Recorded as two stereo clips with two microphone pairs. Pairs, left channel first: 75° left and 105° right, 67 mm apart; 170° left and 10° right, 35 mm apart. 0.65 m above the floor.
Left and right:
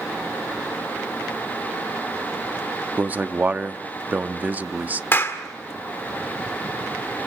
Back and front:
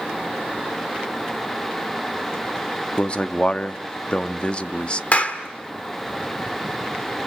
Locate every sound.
3.0 s a man speaking: 155° right, 0.7 m
5.1 s a clap: 125° left, 1.7 m